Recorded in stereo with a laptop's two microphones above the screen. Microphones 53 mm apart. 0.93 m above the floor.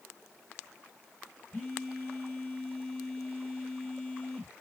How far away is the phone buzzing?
About 1.0 m.